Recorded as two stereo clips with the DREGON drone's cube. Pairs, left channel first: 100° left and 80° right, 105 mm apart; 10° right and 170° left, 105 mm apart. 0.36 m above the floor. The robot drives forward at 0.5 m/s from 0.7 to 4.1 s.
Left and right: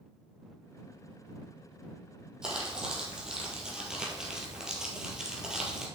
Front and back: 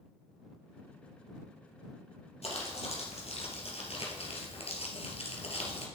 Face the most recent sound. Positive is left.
turn(degrees=5)